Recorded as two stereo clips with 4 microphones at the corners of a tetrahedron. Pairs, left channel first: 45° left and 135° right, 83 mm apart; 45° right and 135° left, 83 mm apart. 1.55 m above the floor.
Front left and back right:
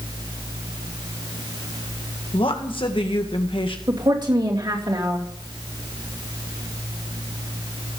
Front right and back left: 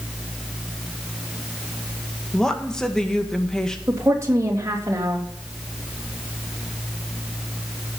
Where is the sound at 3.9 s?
170° right, 3 m.